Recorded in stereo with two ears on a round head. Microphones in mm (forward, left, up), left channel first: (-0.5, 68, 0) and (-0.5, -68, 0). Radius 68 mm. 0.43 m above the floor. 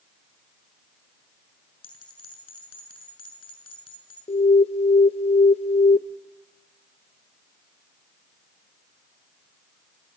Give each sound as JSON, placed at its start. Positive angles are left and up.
{"t": 1.8, "sound": "a bell", "side_deg": 35, "distance_m": 6.0}
{"t": 4.3, "sound": "an alarm", "side_deg": 40, "distance_m": 0.5}